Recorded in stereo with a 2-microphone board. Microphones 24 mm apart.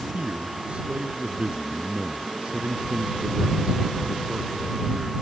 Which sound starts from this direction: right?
A man speaking, at 0.1 s.